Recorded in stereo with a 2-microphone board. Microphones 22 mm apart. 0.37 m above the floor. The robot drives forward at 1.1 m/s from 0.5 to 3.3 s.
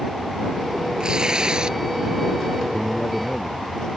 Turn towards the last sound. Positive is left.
turn(degrees=25)  # may be behind; listen again after turning